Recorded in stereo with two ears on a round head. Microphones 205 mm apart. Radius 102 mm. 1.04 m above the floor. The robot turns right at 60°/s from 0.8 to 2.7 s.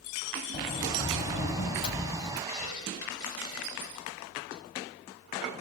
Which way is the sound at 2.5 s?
75° left (ahead or behind).